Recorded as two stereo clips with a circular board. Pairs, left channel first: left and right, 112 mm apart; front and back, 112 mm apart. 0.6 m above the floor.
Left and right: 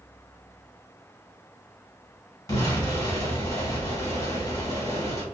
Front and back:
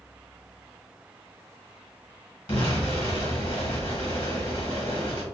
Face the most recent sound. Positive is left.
turn(degrees=35)